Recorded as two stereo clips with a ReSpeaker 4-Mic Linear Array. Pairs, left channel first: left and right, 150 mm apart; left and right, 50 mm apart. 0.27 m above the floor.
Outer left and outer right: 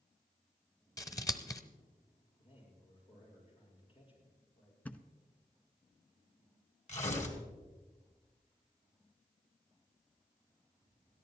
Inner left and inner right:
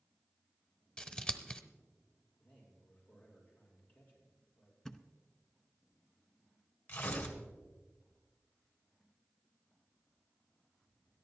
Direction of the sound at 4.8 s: 10° left (ahead or behind).